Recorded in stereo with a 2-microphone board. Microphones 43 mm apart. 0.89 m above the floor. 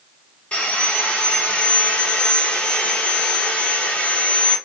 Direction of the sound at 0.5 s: 25° left (ahead or behind).